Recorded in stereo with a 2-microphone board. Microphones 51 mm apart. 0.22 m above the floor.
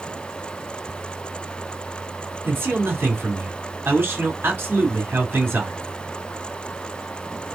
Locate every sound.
2.4 s a man speaking: 40° right (ahead or behind), 2.5 m